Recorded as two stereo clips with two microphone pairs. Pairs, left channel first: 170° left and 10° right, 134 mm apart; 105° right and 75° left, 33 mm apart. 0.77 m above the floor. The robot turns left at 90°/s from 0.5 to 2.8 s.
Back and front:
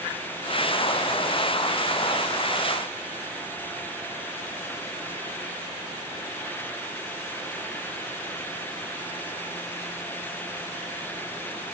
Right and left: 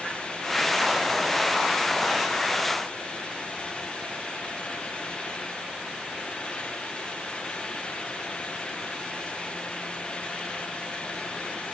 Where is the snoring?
I don't hear snoring.